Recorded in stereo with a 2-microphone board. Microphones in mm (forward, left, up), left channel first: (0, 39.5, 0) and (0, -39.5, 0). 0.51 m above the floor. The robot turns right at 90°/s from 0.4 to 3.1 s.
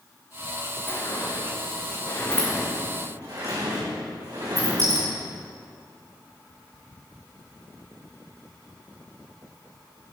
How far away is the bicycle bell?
I don't hear a bicycle bell.